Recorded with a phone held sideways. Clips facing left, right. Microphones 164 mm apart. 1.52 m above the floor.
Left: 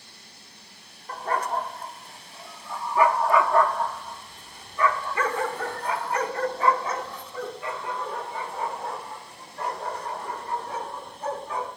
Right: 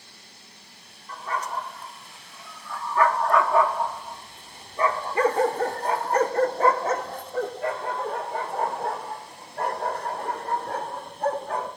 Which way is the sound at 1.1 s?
60° left (ahead or behind).